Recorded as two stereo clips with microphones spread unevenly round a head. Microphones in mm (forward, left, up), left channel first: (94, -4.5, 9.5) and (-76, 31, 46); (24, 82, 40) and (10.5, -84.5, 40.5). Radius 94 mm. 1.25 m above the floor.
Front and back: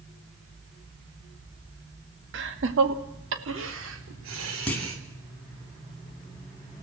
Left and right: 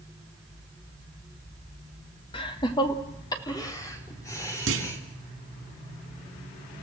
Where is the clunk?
100° right, 2 m.